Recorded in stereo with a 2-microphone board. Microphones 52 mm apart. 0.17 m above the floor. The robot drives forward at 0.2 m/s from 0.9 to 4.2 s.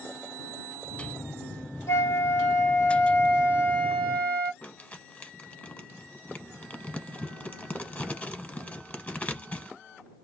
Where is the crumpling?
30° left (ahead or behind), 0.9 m.